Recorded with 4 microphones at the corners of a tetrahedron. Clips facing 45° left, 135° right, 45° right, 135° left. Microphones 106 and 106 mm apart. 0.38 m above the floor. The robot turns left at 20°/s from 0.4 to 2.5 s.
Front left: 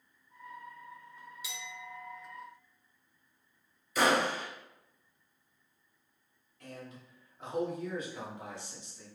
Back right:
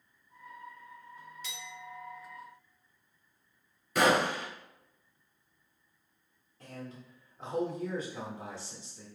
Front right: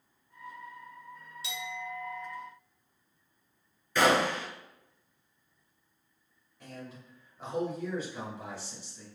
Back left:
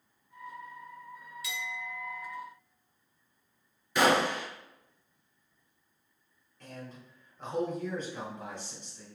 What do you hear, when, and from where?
1.4 s a clink: 25° right, 0.7 m; by 2.3 s 40° right, 0.7 m
4.0 s a gunshot: 150° right, 1.0 m
6.6 s a man speaking: 120° right, 1.0 m